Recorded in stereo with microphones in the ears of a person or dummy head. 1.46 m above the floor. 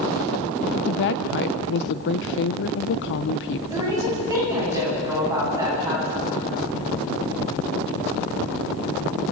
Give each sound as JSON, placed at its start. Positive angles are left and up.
{"t": 0.7, "sound": "a woman speaking", "side_deg": 60, "distance_m": 0.8}
{"t": 3.7, "sound": "a woman speaking", "side_deg": -10, "distance_m": 9.5}